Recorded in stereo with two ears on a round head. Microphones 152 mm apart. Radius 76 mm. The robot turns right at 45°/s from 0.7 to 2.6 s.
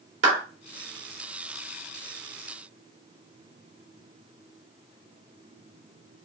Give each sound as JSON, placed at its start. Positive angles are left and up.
{"t": 0.2, "sound": "a clap", "side_deg": -75, "distance_m": 2.5}